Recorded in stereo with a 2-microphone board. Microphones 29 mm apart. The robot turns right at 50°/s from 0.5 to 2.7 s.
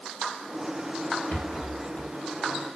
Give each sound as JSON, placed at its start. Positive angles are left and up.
{"t": 1.3, "sound": "a rattle", "side_deg": 80, "distance_m": 3.5}